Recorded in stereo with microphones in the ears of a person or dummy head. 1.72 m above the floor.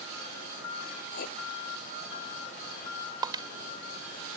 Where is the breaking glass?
20° right (ahead or behind).